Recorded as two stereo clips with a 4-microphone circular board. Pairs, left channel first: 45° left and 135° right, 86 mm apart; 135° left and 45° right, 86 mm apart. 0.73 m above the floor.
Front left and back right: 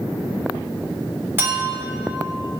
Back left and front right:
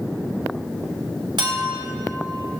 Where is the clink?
70° right, 1.3 m.